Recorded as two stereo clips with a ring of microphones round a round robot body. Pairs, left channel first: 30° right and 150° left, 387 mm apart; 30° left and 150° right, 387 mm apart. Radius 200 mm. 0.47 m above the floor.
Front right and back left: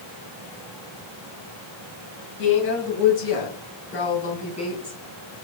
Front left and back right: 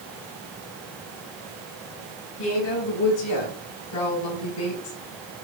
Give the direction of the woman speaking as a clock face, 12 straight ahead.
12 o'clock.